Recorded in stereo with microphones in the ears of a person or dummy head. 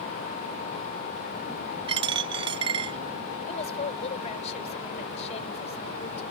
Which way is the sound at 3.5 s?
45° left (ahead or behind).